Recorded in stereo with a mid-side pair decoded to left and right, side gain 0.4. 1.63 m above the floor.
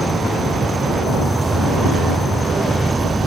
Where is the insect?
25° right.